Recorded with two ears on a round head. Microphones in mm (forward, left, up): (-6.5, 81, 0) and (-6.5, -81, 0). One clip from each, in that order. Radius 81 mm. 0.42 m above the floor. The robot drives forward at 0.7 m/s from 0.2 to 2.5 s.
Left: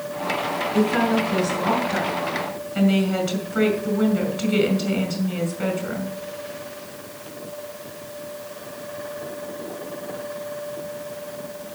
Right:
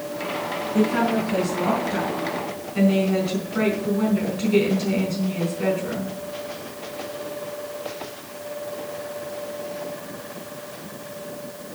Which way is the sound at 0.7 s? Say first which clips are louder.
Even; 25° left (ahead or behind).